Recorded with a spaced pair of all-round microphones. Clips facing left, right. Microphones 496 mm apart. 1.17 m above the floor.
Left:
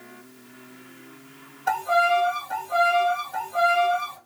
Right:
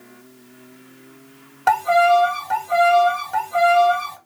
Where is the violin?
90° right, 0.8 m.